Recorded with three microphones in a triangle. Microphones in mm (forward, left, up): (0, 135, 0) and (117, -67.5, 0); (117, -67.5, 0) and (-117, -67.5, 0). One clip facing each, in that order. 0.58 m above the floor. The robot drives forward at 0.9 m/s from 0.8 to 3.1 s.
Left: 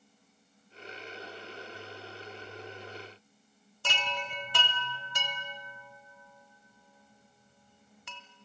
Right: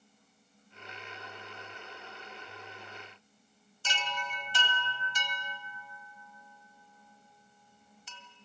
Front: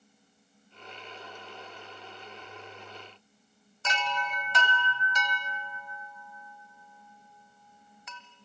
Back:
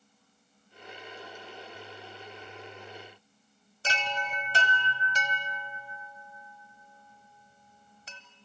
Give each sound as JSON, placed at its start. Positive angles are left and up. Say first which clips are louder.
{"t": 3.8, "sound": "a chime", "louder": "left 3 dB, front 1 dB", "azimuth_deg": 125, "distance_m": 2.0}